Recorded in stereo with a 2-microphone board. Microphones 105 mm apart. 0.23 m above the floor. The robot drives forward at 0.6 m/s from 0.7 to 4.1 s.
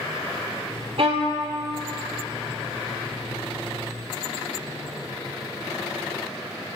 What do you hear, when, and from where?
1.0 s a violin: 65° right (ahead or behind), 1.0 m; by 1.4 s 80° right, 0.9 m